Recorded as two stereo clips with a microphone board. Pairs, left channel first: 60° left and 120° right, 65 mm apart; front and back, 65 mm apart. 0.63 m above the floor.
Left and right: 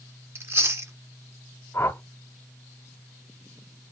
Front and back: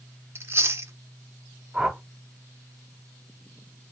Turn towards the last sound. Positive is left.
turn(degrees=100)